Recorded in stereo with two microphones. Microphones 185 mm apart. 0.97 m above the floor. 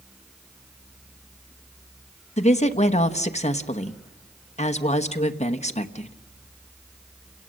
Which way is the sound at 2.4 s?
35° left (ahead or behind).